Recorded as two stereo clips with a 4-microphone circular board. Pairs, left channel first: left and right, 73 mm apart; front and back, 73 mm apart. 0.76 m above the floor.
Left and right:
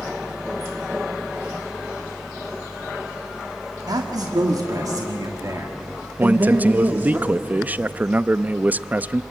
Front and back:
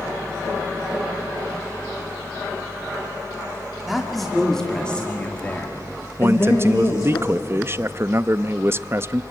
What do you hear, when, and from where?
3.9 s a man speaking: 90° right, 2 m; by 7.2 s 30° right, 2 m
6.2 s a man speaking: 145° right, 0.5 m